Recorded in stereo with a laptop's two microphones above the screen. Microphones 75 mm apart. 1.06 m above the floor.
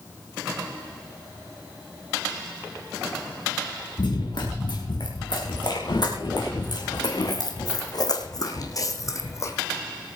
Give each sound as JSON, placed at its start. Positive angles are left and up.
{"t": 4.0, "sound": "running footsteps", "side_deg": 65, "distance_m": 4.5}